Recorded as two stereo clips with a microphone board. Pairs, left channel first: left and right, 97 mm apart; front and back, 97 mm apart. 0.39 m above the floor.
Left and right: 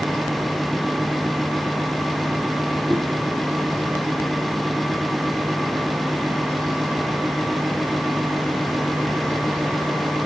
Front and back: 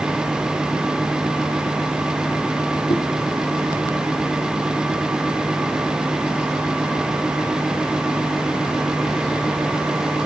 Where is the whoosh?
Straight ahead, 2.5 m.